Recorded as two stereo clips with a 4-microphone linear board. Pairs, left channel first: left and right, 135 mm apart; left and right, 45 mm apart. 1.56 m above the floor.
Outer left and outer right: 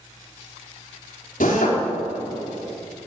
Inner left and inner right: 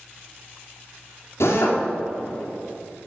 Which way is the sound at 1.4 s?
85° left.